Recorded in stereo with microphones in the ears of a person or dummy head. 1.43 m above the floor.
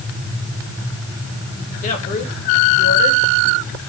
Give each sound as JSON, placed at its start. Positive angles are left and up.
{"t": 1.8, "sound": "a woman speaking", "side_deg": 40, "distance_m": 3.0}